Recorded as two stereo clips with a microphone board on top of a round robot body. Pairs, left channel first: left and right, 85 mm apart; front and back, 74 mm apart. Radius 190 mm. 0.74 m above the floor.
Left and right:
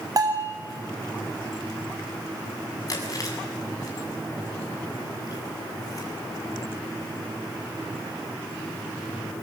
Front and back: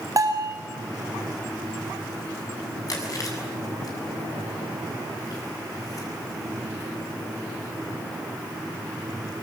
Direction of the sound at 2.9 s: 40° left.